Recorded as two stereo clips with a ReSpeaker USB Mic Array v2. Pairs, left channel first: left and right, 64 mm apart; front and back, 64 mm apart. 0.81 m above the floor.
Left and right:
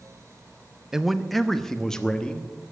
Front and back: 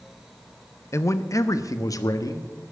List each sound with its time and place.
0.9 s a man speaking: 10° right, 0.7 m; by 2.5 s 15° left, 1.3 m